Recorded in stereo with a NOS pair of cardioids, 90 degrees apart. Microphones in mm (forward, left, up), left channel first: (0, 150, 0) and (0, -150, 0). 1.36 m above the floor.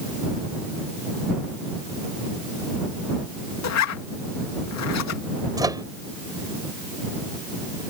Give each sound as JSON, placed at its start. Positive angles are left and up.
{"t": 3.6, "sound": "a zipper", "azimuth_deg": 60}
{"t": 5.6, "sound": "a microwave", "azimuth_deg": -10}